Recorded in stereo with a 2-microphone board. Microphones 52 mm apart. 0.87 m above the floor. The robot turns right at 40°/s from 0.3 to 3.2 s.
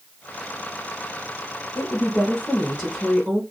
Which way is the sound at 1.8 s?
135° left.